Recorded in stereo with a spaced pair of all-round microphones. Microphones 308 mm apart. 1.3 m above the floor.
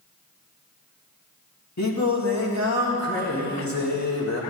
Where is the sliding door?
No sliding door in this recording.